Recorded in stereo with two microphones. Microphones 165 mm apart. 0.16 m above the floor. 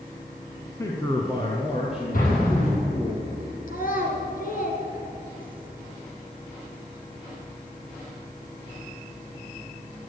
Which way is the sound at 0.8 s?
20° left (ahead or behind).